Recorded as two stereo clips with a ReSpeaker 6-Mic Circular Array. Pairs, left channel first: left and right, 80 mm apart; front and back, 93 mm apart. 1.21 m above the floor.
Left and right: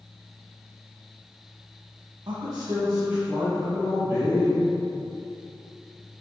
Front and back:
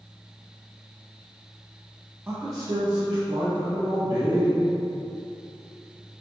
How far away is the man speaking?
About 0.5 m.